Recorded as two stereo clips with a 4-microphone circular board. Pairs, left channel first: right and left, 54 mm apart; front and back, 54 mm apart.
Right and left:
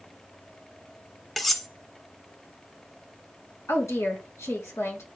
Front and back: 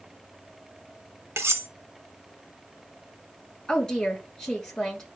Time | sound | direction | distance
1.4 | cutlery clinking | 175° right | 0.9 m
3.7 | a woman speaking | 75° right | 3.5 m